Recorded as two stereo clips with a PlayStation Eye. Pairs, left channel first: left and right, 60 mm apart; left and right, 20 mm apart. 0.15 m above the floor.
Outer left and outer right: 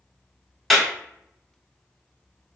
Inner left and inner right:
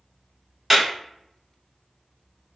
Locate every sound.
0.7 s a clap: 5° left (ahead or behind), 1.0 m